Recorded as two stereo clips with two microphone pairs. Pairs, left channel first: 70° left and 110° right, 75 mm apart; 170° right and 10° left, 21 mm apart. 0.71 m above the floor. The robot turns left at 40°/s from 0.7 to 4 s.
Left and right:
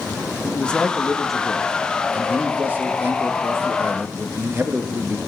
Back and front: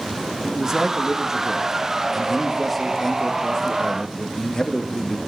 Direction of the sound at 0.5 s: 5° left.